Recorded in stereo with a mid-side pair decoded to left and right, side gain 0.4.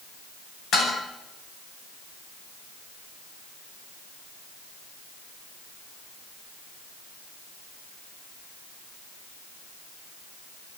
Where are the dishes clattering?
65° left, 9 m.